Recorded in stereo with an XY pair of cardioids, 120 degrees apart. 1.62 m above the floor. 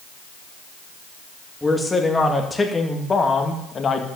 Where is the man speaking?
10° left, 3 m; by 4.1 s 35° left, 2.5 m.